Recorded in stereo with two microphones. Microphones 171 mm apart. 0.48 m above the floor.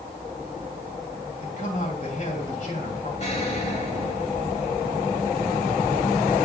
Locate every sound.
1.4 s a man speaking: 55° left (ahead or behind), 3 m
3.2 s an explosion: 45° left (ahead or behind), 2 m